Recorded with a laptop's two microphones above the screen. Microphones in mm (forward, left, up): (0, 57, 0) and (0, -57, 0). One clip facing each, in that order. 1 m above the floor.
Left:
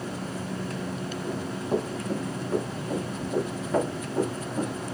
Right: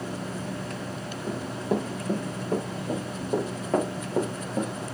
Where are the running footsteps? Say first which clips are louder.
Right 1 dB; 65° right (ahead or behind), 5 m; by 4.7 s 60° right (ahead or behind), 3 m.